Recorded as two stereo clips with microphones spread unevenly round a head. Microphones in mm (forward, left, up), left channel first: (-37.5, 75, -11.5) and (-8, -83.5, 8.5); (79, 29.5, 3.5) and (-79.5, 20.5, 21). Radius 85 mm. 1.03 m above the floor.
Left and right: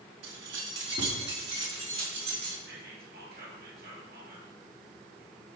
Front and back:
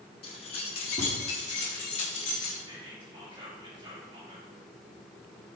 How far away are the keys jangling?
About 1.0 m.